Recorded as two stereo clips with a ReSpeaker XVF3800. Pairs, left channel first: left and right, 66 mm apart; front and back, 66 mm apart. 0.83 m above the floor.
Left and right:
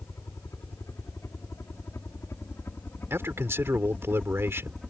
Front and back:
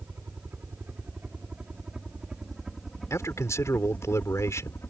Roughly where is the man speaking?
Ahead right.